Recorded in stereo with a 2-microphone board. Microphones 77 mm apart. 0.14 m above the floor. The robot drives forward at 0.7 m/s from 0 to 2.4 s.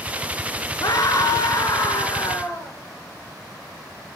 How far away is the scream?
About 2 m.